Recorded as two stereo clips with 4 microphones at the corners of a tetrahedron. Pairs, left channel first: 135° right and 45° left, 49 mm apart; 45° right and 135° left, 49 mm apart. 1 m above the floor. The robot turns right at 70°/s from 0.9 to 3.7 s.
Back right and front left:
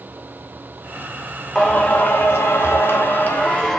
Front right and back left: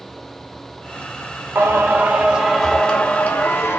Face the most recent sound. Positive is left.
turn(degrees=-60)